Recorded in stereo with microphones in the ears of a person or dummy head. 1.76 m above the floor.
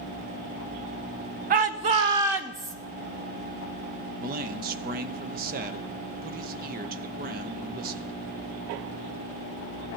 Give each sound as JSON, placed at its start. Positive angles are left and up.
{"t": 1.5, "sound": "a shout", "side_deg": -40, "distance_m": 0.9}
{"t": 4.2, "sound": "a man speaking", "side_deg": -50, "distance_m": 0.9}